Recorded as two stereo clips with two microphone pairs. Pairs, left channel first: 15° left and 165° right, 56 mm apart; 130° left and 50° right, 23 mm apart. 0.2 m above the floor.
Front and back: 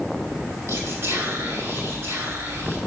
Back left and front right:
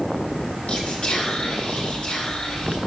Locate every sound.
0.7 s whispering: 170° left, 2.5 m